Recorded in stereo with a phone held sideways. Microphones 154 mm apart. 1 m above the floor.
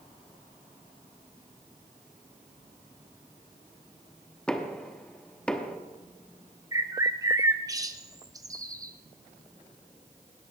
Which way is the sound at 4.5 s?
5° left (ahead or behind).